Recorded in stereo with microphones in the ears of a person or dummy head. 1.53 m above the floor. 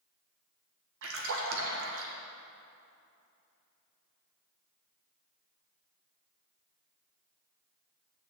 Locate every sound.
1.0 s a splash: 75° right (ahead or behind), 1.6 m